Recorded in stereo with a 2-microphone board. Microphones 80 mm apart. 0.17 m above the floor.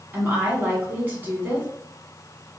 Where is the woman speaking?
25° right (ahead or behind), 1.6 m.